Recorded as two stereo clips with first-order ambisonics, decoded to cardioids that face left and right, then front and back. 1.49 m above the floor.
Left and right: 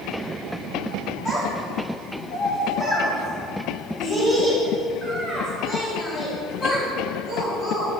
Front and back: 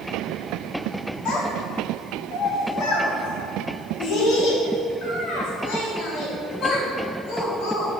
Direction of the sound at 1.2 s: 25° left.